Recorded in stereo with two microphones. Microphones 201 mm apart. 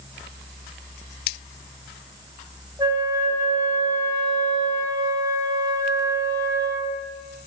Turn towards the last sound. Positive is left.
turn(degrees=-20)  # may be behind; listen again after turning